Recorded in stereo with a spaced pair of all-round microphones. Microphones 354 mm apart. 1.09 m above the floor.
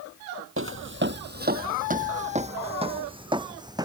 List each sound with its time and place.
0.6 s footsteps: 35° right (ahead or behind); by 3.9 s 10° right (ahead or behind)